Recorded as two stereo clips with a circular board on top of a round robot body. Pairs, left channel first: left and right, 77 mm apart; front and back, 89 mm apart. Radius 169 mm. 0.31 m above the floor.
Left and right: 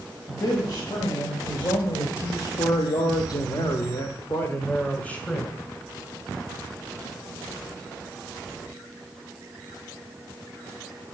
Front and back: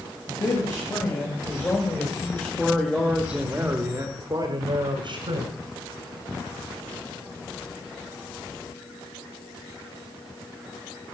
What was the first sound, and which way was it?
A man speaking, 45° left.